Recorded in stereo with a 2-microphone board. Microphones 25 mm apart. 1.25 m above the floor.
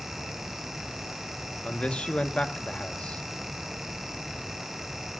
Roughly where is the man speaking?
Left.